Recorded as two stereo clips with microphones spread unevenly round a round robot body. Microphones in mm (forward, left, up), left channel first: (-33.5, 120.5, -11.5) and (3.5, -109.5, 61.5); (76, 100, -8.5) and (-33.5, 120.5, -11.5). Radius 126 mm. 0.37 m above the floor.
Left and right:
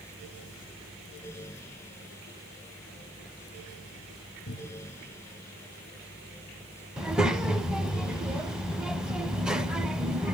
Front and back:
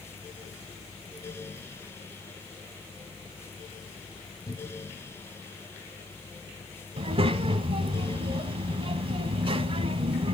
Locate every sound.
4.5 s a cupboard door: 40° left, 3.5 m
7.0 s a child speaking: 175° left, 1.0 m